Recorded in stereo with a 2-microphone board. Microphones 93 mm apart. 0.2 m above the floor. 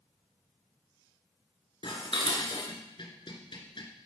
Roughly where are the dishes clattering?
Left.